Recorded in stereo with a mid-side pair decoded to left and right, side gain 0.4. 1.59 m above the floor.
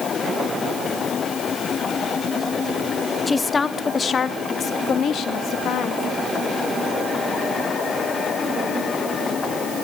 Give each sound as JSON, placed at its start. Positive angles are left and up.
{"t": 3.3, "sound": "a woman speaking", "azimuth_deg": 25, "distance_m": 1.8}